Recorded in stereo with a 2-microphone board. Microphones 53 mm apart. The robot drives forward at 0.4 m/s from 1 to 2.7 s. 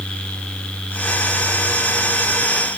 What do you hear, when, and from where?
Only background noise.